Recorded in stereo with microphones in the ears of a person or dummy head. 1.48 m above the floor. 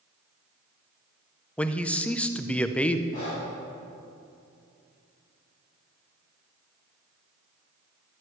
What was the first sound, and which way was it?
A man speaking, 5° left (ahead or behind).